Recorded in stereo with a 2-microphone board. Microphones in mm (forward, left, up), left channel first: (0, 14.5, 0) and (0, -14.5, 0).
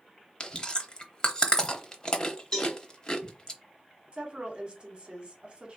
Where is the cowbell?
25° left (ahead or behind), 2.0 m.